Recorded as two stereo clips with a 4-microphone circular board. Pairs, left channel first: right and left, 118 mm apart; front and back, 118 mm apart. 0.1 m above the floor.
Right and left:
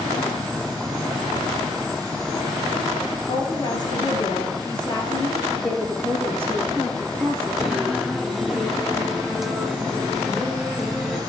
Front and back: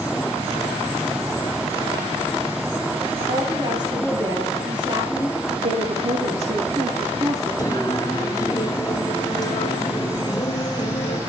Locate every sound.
3.3 s a woman speaking: 135° right, 3 m
5.6 s a woman speaking: 170° right, 4.5 m
7.6 s singing: 5° left, 1.0 m